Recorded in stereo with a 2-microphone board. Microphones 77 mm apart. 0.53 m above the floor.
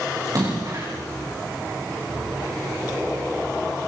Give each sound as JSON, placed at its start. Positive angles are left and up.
{"t": 0.2, "sound": "a splash", "side_deg": -50, "distance_m": 8.0}